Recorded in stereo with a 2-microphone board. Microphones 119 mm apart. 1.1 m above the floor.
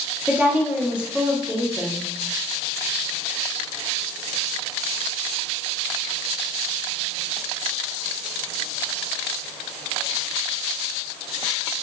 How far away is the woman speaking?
About 0.7 m.